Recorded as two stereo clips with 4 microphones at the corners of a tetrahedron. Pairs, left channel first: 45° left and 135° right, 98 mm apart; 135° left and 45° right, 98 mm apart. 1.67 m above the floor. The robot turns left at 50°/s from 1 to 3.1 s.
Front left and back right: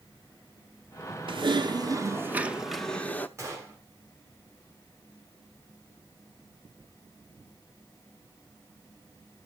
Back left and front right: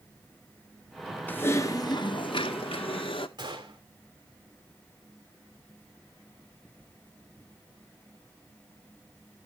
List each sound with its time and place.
1.3 s typing on a keyboard: 155° right, 0.7 m; by 3.3 s 115° left, 0.7 m
3.4 s a gunshot: 80° right, 3 m